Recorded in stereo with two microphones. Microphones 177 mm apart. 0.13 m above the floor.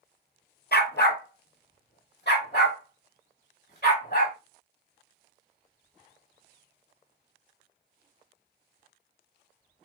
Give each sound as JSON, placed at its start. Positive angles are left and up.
{"t": 0.7, "sound": "a dog barking", "side_deg": 65, "distance_m": 0.7}